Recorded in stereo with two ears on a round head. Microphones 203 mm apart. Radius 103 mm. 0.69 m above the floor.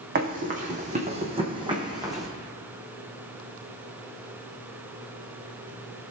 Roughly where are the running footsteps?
Right.